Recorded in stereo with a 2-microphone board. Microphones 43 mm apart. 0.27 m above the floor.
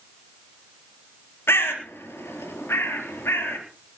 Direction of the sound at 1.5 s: 70° left (ahead or behind).